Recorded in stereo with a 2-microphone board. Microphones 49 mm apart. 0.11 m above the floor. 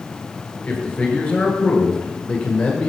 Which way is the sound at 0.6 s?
25° left (ahead or behind).